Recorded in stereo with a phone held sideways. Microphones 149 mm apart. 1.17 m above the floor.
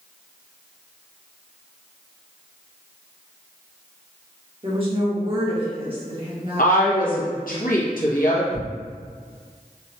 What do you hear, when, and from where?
4.6 s a woman speaking: 40° right (ahead or behind), 1.2 m
6.6 s a woman speaking: 70° left (ahead or behind), 1.0 m
8.5 s tearing paper: 80° right, 1.5 m